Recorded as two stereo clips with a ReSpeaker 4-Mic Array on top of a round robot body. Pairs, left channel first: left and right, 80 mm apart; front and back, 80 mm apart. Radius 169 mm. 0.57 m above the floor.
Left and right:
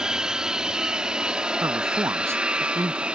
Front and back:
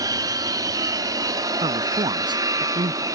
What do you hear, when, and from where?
0.0 s an aircraft: 170° right; by 3.1 s 160° right
1.6 s a man speaking: 150° right